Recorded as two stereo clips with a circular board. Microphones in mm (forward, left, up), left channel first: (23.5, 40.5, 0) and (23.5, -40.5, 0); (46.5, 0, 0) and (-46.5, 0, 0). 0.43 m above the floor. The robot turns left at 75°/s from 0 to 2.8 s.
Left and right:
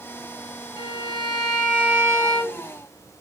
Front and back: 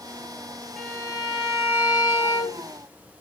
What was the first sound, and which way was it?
A violin, 80° left.